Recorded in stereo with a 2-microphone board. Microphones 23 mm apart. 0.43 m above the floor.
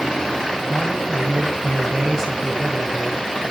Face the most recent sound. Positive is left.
turn(degrees=-10)  # may be behind; listen again after turning